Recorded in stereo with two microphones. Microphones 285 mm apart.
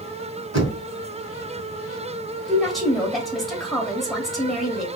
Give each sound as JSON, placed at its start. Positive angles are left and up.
{"t": 0.5, "sound": "knocking", "side_deg": -65, "distance_m": 1.6}
{"t": 2.5, "sound": "a woman speaking", "side_deg": 0, "distance_m": 2.0}